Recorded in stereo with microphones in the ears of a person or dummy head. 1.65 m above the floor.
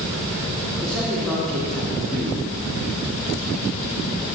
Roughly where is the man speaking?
Centre.